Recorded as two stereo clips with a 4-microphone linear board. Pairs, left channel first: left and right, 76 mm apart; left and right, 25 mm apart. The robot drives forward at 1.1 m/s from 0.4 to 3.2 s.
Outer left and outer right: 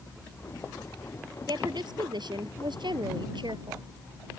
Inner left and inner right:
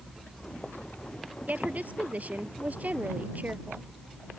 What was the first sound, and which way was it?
A woman speaking, 70° right (ahead or behind).